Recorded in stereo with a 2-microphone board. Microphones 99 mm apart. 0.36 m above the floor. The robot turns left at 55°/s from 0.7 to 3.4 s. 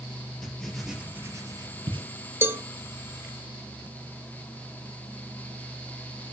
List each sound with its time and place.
0.4 s writing: 5° left (ahead or behind), 2.5 m; by 2.1 s 70° right (ahead or behind), 2.5 m
2.4 s a cowbell: 25° right (ahead or behind), 0.6 m; by 2.6 s 20° right (ahead or behind), 0.6 m